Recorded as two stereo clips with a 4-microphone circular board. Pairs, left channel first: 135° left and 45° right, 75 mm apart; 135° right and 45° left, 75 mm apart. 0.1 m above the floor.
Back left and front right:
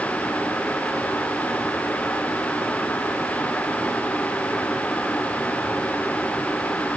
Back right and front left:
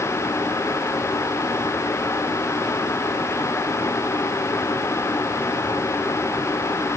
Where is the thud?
No thud in this recording.